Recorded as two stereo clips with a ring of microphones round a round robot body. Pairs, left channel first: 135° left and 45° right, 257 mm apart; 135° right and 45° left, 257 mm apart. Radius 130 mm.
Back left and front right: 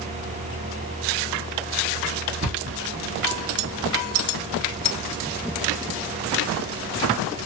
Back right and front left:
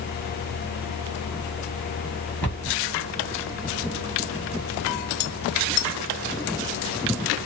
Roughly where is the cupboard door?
Ahead right.